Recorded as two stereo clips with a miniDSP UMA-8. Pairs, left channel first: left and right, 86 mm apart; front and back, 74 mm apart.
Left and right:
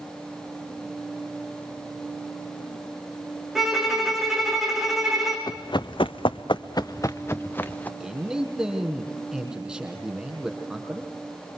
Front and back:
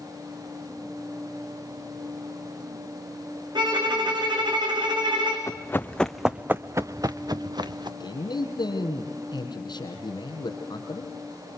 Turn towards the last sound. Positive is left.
turn(degrees=-10)